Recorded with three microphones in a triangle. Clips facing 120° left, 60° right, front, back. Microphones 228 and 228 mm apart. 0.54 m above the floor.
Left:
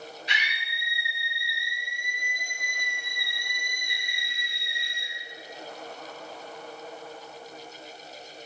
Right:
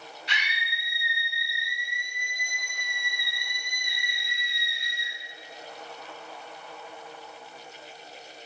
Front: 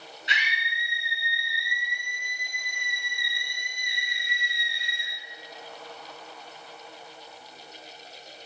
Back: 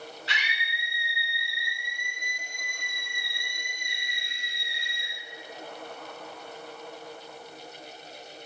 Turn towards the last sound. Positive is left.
turn(degrees=-70)